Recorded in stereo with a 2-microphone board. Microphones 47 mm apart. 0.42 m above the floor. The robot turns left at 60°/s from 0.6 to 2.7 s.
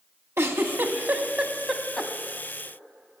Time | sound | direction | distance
0.4 | a giggle | 65° right (ahead or behind) | 0.9 m